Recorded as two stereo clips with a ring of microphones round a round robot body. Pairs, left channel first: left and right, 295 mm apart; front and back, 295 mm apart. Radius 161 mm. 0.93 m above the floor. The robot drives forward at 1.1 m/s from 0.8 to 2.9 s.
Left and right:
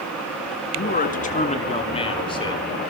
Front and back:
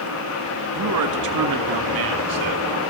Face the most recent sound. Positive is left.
turn(degrees=165)